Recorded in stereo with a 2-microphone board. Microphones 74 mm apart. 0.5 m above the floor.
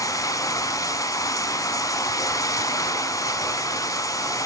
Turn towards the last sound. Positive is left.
turn(degrees=50)  # may be behind; listen again after turning